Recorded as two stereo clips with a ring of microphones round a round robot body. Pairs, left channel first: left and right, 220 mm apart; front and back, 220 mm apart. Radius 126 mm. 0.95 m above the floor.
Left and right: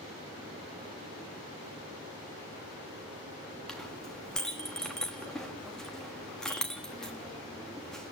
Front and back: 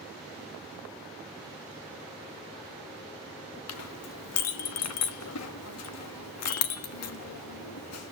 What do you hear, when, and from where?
3.7 s a clink: straight ahead, 1.2 m